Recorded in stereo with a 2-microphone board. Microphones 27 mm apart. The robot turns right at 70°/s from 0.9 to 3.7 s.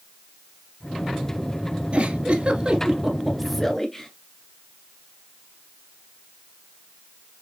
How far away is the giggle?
About 1.2 m.